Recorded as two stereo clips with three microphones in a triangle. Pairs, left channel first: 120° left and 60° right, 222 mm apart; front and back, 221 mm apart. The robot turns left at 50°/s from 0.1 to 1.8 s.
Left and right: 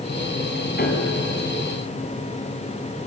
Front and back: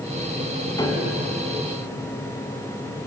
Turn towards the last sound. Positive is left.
turn(degrees=25)